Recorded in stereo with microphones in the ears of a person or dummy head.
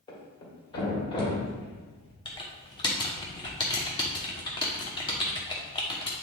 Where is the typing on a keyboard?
25° left (ahead or behind), 1.0 m.